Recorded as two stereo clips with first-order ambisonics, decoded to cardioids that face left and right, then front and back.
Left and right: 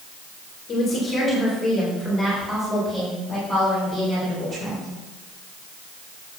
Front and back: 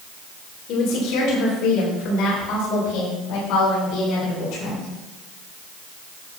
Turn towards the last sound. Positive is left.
turn(degrees=-20)